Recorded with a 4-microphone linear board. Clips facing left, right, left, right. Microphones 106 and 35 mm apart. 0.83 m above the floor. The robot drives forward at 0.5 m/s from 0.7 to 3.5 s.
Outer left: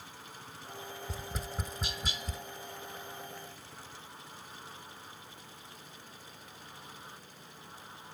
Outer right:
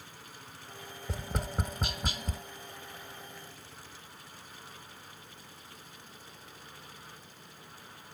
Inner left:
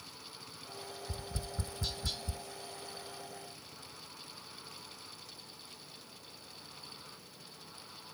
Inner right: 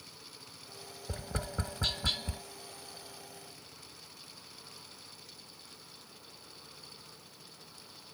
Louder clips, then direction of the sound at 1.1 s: Outer right 7 dB, inner right 8 dB; 65° right (ahead or behind).